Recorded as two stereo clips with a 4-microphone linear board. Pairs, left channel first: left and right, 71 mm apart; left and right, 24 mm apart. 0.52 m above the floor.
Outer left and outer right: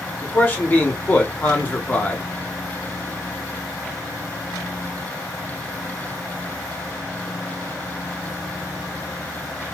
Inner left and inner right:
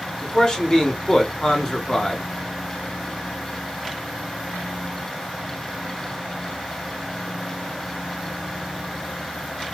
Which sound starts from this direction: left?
A man speaking, at 0.2 s.